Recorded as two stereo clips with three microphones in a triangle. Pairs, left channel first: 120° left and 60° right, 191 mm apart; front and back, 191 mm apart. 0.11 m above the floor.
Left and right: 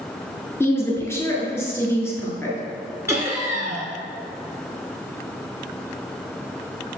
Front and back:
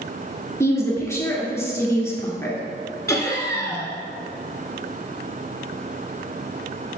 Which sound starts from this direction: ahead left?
A woman speaking, at 0.6 s.